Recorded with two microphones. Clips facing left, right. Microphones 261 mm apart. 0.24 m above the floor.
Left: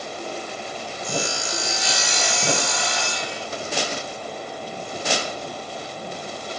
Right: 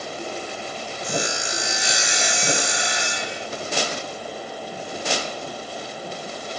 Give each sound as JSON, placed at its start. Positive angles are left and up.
{"t": 1.0, "sound": "sawing", "side_deg": -20}